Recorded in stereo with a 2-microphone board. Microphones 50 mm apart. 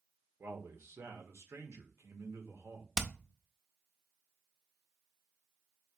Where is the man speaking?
70° right (ahead or behind), 1.2 m.